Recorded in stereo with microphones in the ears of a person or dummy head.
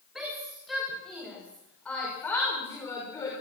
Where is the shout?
5° right (ahead or behind), 6.5 m; by 3.3 s 20° left (ahead or behind), 5.5 m.